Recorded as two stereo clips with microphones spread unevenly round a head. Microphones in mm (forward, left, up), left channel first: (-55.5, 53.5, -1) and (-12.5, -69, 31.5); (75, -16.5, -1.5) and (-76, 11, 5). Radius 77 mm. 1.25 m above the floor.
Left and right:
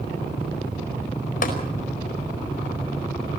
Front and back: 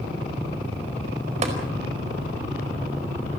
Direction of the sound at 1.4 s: 120° left.